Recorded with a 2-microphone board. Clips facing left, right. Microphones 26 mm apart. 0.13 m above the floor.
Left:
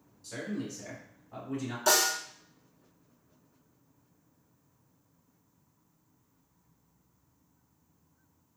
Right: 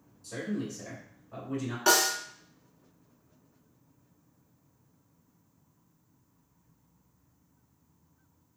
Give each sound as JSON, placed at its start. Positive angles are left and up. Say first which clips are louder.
{"t": 0.2, "sound": "a man speaking", "louder": "right 2 dB", "side_deg": 15, "distance_m": 1.5}
{"t": 1.9, "sound": "a snare drum", "louder": "right 2 dB", "side_deg": -30, "distance_m": 0.8}